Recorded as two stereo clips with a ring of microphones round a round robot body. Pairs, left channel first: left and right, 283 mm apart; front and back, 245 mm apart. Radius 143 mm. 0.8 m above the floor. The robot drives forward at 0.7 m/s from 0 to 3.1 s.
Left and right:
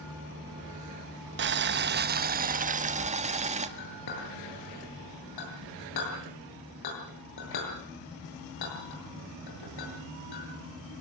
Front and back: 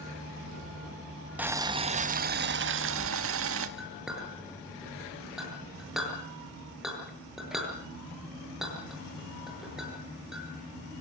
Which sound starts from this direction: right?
Boiling, at 1.4 s.